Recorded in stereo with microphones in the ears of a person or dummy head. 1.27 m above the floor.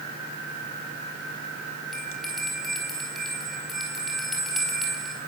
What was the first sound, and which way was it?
A bell, centre (ahead or behind).